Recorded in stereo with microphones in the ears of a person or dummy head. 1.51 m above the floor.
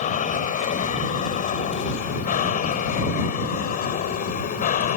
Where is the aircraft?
45° left (ahead or behind); by 5.0 s 50° left (ahead or behind).